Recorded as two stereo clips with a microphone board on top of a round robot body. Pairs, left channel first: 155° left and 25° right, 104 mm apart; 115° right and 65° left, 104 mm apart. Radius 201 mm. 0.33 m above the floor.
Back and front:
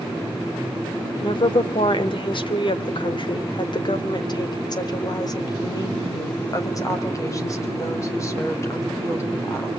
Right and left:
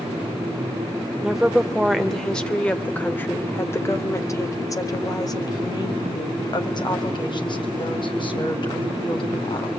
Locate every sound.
1.2 s a woman speaking: 150° left, 2.5 m; by 9.7 s 140° right, 5 m